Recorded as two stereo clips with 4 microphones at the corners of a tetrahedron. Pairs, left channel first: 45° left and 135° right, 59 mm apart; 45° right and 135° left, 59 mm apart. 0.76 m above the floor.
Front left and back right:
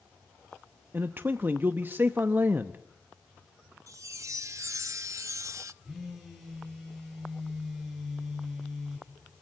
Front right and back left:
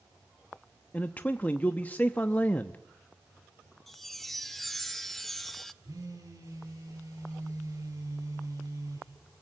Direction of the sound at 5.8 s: 135° left.